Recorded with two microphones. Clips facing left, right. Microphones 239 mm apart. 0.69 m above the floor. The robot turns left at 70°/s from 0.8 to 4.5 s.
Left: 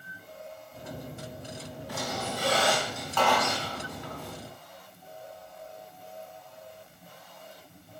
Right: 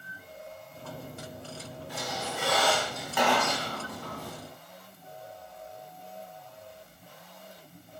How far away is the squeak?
About 4 m.